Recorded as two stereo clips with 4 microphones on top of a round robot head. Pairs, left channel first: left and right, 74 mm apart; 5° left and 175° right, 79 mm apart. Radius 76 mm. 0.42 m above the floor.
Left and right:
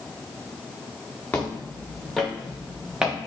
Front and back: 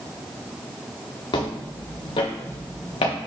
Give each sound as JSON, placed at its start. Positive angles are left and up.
{"t": 1.3, "sound": "footsteps", "azimuth_deg": 20, "distance_m": 2.0}